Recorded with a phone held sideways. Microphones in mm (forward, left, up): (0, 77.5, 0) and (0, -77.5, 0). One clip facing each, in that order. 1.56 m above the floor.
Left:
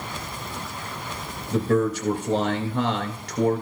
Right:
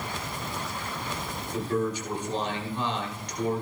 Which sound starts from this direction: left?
A man speaking, at 1.5 s.